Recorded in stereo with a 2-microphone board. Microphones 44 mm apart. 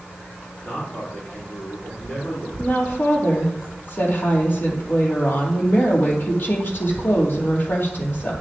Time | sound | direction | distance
0.6 | a man speaking | 40° left (ahead or behind) | 4.5 m
2.6 | a woman speaking | 50° left (ahead or behind) | 3 m